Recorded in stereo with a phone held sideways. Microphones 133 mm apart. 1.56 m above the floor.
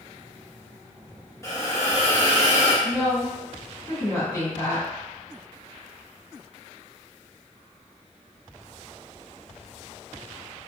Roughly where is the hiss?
Left.